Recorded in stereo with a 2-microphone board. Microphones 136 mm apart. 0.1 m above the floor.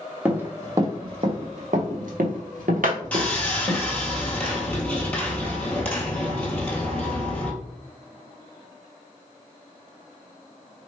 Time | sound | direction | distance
0.2 | running footsteps | 10° right (ahead or behind) | 0.9 m
3.1 | sawing | 10° left (ahead or behind) | 0.9 m